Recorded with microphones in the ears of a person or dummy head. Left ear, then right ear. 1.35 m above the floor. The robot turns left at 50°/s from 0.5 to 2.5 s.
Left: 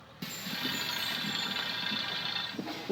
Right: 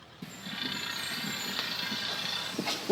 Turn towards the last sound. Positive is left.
turn(degrees=-75)  # may be behind; listen again after turning